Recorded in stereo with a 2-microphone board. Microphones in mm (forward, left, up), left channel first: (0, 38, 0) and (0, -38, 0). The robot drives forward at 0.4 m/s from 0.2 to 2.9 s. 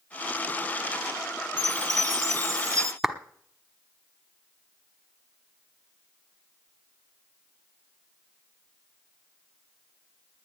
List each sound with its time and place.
1.6 s a chime: 50° right (ahead or behind), 0.9 m; by 2.9 s 45° right (ahead or behind), 1.1 m
3.0 s a clap: centre (ahead or behind), 1.0 m